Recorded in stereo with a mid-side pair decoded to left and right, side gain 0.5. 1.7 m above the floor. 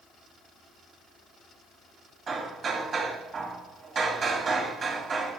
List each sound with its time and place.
2.3 s hammering: 45° right, 3 m